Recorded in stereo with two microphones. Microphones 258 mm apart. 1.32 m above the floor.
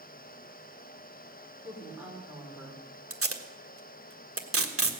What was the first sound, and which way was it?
A woman speaking, 10° right (ahead or behind).